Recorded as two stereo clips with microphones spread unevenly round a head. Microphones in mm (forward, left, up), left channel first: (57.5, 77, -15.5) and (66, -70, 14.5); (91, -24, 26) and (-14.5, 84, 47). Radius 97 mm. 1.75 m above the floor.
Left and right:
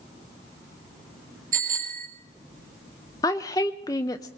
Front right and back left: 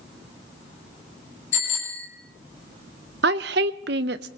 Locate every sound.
1.5 s a bicycle bell: 65° right, 5.5 m
3.2 s a woman speaking: 170° left, 0.5 m